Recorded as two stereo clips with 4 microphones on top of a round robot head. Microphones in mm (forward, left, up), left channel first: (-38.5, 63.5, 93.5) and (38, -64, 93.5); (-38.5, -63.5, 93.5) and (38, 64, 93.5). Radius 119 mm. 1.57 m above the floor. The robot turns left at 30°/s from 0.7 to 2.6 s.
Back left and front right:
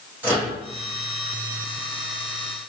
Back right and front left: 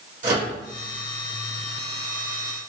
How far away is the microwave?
About 1.0 m.